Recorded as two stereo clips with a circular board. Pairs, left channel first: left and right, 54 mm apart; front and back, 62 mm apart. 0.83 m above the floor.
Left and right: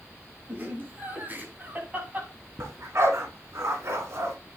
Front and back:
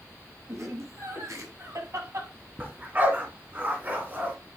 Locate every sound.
0.5 s laughter: 140° right, 7 m; by 2.3 s 150° right, 6 m
2.6 s a dog barking: 120° right, 3.5 m